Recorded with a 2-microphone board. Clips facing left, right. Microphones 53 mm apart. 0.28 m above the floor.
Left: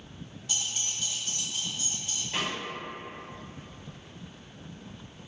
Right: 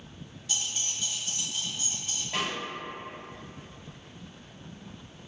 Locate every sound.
0.5 s keys jangling: 30° left (ahead or behind), 1.2 m; by 2.2 s 55° right (ahead or behind), 1.5 m
2.3 s a snare drum: 40° right (ahead or behind), 1.9 m